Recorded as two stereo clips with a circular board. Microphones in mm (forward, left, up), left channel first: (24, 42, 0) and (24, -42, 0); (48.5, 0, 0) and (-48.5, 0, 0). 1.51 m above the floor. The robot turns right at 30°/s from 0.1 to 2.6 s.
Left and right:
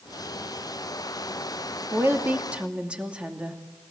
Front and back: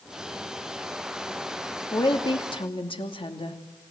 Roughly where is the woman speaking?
Ahead right.